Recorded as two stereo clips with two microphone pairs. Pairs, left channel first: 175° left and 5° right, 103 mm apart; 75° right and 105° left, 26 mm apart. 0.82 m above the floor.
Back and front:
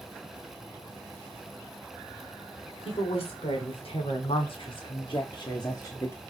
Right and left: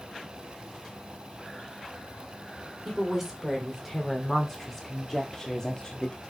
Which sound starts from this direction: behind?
A woman speaking, at 2.9 s.